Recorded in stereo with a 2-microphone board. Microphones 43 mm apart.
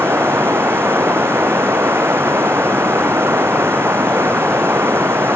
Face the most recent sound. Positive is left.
turn(degrees=-60)  # may be behind; listen again after turning